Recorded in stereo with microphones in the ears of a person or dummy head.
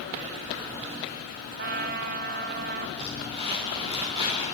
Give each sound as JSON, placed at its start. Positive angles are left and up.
{"t": 1.6, "sound": "a trumpet", "side_deg": -45, "distance_m": 0.9}
{"t": 3.0, "sound": "crumpling", "side_deg": -30, "distance_m": 8.0}